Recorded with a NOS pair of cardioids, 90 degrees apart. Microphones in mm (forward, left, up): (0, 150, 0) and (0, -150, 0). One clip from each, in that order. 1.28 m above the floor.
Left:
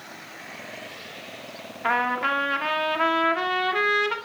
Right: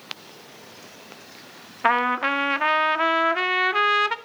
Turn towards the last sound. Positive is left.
turn(degrees=-50)